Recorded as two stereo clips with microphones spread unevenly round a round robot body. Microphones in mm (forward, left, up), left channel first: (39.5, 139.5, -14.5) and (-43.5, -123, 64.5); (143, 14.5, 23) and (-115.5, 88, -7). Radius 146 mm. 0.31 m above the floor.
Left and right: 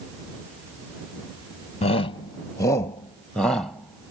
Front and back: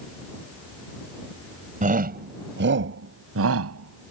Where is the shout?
115° left; by 4.1 s 155° left.